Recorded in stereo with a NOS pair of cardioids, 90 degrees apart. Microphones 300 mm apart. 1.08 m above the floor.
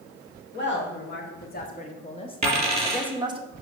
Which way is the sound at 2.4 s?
20° right.